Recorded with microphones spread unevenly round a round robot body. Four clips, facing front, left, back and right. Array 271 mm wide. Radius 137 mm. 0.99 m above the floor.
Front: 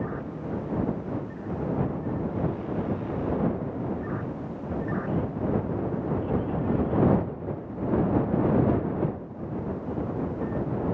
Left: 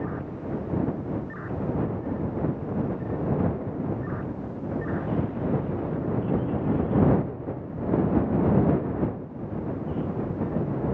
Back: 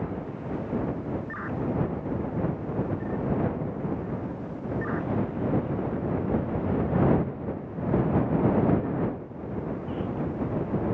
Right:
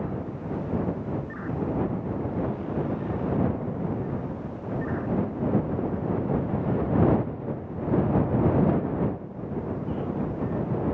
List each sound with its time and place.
Only background noise.